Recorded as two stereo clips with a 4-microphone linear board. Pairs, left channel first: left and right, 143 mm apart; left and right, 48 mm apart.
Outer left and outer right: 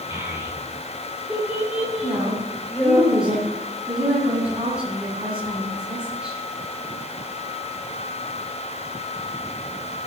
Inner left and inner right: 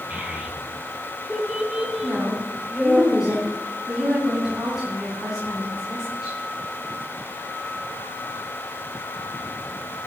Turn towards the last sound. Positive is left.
turn(degrees=-5)  # may be behind; listen again after turning